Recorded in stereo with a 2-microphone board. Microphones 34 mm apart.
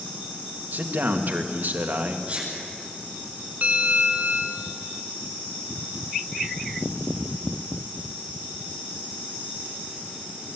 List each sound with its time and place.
0.7 s a man speaking: 60° right (ahead or behind), 2.0 m
2.3 s a sneeze: 35° right (ahead or behind), 9 m
3.6 s a bell: 50° right (ahead or behind), 1.7 m